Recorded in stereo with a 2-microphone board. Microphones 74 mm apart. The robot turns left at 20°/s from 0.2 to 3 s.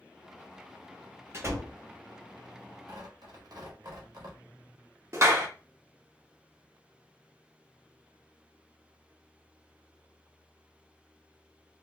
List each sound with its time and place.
1.3 s a door slam: 35° right (ahead or behind), 0.8 m; by 1.8 s 40° right (ahead or behind), 0.8 m
2.9 s tearing paper: 50° right (ahead or behind), 0.8 m; by 4.4 s 55° right (ahead or behind), 0.8 m
5.1 s a clap: 40° right (ahead or behind), 0.7 m